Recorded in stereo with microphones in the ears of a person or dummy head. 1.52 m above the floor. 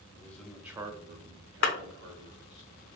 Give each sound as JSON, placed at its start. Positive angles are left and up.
{"t": 0.1, "sound": "a man speaking", "side_deg": 10, "distance_m": 0.8}
{"t": 1.6, "sound": "a clap", "side_deg": 55, "distance_m": 0.6}